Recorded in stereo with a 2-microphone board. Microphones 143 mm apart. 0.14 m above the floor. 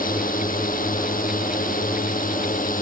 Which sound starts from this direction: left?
A drone, at 0.0 s.